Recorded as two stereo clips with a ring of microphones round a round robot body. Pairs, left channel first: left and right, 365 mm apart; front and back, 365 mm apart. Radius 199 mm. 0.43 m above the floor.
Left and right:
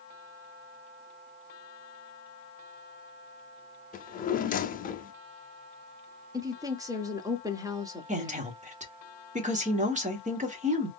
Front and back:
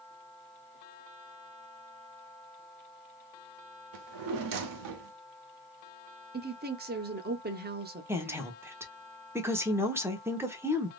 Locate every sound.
3.9 s a drawer: 155° left, 0.7 m
6.3 s a woman speaking: 160° right, 0.8 m
8.1 s a woman speaking: 110° right, 1.0 m